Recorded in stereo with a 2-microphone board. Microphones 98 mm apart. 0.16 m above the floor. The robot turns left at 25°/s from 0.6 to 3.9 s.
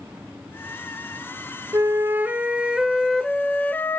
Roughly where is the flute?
Behind right.